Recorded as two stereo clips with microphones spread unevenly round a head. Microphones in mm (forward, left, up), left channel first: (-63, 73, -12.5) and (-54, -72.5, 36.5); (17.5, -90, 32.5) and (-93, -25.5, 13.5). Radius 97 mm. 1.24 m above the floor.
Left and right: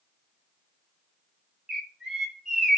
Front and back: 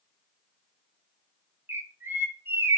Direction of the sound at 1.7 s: 140° right.